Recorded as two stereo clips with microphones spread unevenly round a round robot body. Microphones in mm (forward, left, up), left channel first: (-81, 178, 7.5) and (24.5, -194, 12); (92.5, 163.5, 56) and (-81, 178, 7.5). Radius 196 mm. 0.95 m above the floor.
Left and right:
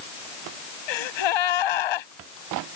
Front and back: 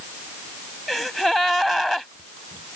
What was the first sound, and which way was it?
A gasp, 80° left.